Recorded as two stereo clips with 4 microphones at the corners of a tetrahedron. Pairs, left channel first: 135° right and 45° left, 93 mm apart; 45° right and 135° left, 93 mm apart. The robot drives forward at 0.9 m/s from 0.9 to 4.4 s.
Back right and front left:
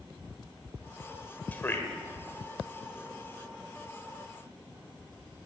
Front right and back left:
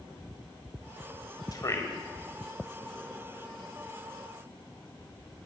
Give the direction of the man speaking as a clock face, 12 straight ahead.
2 o'clock.